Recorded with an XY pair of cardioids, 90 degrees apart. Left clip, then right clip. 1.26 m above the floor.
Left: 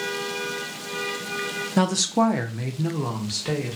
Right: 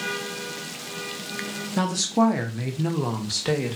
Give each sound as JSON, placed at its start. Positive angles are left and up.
{"t": 1.8, "sound": "a woman speaking", "azimuth_deg": 35, "distance_m": 0.7}